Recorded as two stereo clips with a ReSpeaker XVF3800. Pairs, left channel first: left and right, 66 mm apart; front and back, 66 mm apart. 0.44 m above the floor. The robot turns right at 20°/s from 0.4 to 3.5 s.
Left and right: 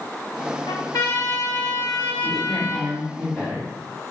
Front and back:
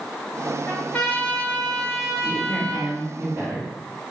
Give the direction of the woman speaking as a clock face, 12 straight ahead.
8 o'clock.